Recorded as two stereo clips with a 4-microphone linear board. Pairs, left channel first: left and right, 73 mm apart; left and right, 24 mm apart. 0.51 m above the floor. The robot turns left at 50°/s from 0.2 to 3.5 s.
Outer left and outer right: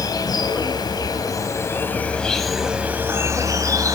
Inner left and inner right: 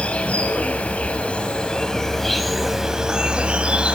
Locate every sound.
0.0 s an insect: 115° left, 4 m; by 4.0 s 50° right, 4 m